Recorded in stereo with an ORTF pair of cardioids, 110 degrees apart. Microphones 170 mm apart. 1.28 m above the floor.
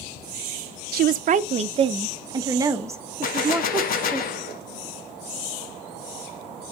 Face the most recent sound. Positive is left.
turn(degrees=55)